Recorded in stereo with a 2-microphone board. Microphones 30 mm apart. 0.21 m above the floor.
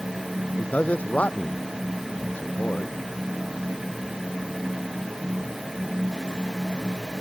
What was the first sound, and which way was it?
A man speaking, 55° left (ahead or behind).